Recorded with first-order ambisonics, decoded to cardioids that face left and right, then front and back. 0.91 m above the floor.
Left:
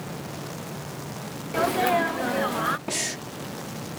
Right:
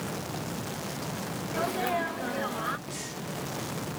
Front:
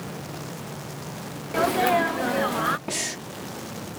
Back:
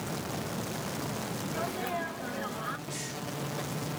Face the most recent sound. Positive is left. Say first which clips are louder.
# left 9 dB, front 8 dB
turn(degrees=45)